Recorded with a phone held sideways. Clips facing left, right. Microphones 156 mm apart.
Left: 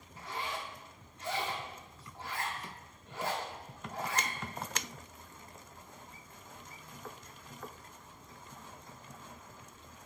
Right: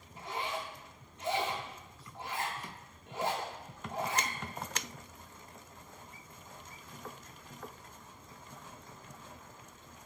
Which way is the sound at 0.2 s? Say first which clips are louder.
Right 2 dB; 20° right (ahead or behind).